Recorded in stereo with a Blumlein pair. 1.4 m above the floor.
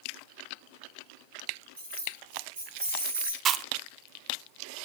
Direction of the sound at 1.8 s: 65° right.